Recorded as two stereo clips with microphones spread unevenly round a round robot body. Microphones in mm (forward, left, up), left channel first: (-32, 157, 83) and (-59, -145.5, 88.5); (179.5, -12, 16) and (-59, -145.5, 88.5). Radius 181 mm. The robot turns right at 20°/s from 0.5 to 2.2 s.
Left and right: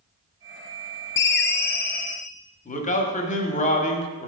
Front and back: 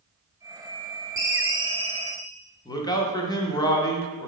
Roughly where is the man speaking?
Ahead left.